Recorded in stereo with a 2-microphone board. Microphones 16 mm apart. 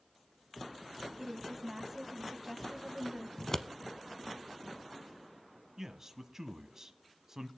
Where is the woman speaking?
10° right (ahead or behind), 1.0 m.